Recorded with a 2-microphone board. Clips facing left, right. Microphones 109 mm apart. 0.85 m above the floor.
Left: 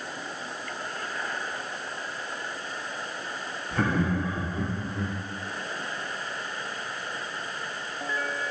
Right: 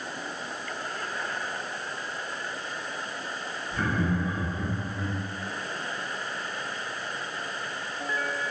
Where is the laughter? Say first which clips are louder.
Left 2 dB; 70° left (ahead or behind), 0.8 m; by 5.2 s 75° left (ahead or behind), 1.5 m.